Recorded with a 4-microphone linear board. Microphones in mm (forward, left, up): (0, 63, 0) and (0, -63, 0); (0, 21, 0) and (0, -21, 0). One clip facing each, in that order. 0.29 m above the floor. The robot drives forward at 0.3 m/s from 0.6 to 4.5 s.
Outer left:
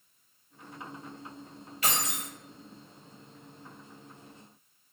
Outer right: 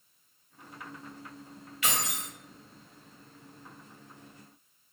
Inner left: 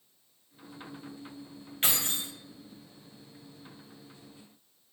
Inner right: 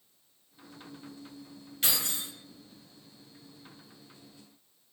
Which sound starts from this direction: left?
Keys jangling, at 1.8 s.